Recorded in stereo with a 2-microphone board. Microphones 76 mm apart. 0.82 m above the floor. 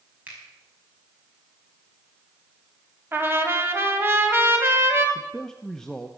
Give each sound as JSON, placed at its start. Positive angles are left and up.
{"t": 0.3, "sound": "a finger snap", "side_deg": -20, "distance_m": 5.0}
{"t": 3.1, "sound": "a trumpet", "side_deg": -30, "distance_m": 1.9}
{"t": 5.2, "sound": "a man speaking", "side_deg": 10, "distance_m": 0.9}